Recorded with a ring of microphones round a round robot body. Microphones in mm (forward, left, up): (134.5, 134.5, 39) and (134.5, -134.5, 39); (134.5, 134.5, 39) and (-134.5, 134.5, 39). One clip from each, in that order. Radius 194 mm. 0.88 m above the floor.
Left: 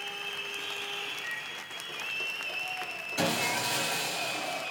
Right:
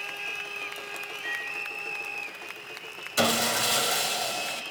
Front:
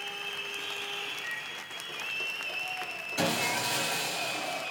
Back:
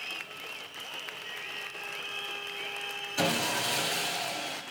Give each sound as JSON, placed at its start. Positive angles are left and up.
{"t": 1.2, "sound": "a microwave", "azimuth_deg": -35, "distance_m": 3.0}
{"t": 3.2, "sound": "sawing", "azimuth_deg": -95, "distance_m": 0.9}